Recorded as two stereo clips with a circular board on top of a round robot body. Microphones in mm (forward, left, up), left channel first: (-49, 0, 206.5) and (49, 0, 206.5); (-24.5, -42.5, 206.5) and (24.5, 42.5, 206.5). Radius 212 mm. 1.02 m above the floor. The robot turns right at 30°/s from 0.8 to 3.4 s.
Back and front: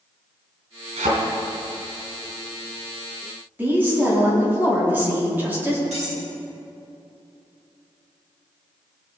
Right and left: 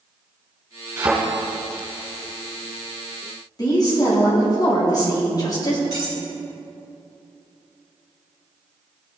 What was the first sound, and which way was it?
A thud, 5° right.